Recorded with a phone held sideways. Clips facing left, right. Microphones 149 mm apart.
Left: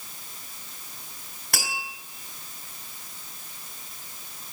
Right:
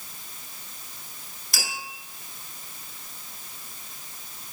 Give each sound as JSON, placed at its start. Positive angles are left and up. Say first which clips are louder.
{"t": 1.5, "sound": "tapping", "louder": "left 3 dB", "side_deg": 70, "distance_m": 5.5}